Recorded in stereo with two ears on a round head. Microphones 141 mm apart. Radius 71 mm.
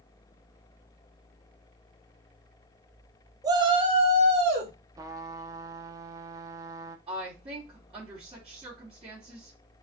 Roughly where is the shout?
Right.